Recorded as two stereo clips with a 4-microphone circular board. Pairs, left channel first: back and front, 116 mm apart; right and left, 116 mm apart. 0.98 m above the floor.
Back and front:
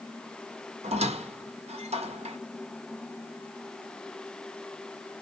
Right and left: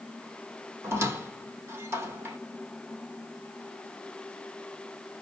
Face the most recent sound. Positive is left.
turn(degrees=20)